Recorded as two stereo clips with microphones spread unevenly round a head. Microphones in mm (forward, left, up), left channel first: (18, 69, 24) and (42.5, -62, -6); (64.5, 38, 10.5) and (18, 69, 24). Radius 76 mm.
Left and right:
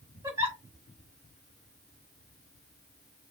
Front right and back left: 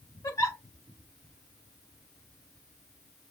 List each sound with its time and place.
0.2 s a giggle: 10° right, 6.5 m